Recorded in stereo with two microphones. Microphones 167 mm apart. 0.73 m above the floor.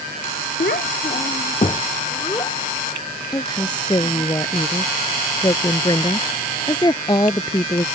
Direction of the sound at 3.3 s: 25° left (ahead or behind).